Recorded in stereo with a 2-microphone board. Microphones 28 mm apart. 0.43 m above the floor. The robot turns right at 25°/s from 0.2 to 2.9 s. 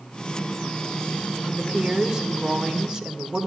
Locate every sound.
1.4 s a woman speaking: 155° right, 1.4 m; by 3.5 s 120° right, 1.4 m